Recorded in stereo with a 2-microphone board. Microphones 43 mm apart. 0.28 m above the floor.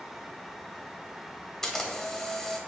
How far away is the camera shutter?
About 0.6 m.